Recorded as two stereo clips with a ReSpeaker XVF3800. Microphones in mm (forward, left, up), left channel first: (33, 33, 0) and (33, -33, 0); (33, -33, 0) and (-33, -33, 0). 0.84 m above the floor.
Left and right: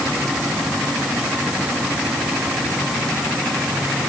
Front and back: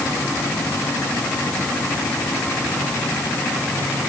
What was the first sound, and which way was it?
Only background noise.